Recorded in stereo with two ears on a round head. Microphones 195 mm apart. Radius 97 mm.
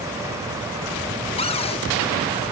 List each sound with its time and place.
1.4 s a cupboard door: 25° left (ahead or behind), 1.3 m